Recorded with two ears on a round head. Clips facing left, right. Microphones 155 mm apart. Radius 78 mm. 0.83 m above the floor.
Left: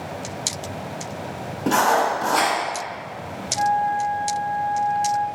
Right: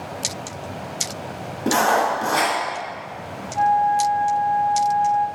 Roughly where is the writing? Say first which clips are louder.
Even; centre.